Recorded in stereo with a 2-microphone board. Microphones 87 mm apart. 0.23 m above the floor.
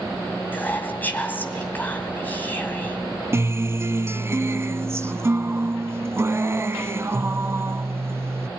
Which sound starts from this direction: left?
Whispering, at 0.5 s.